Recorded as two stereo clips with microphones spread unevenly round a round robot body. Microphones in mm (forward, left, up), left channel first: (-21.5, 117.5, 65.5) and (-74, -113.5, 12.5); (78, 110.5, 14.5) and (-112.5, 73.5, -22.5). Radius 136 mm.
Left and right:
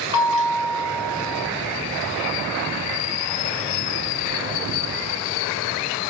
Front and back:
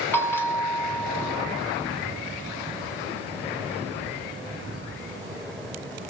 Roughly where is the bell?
Left.